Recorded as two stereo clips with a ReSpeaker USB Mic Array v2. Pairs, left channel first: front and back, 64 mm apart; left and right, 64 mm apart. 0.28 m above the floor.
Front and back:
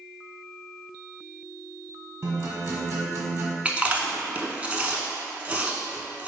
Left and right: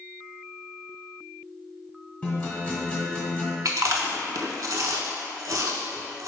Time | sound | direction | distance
2.2 | a guitar | 145° left | 1.4 m
3.6 | chewing | 110° right | 0.5 m